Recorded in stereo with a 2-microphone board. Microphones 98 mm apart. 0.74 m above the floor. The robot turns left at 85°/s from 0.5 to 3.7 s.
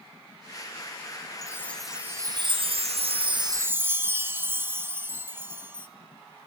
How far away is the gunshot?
I don't hear a gunshot.